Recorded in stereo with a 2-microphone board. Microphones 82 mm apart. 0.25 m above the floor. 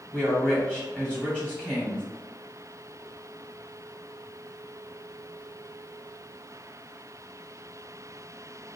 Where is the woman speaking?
15° left (ahead or behind), 1.8 m.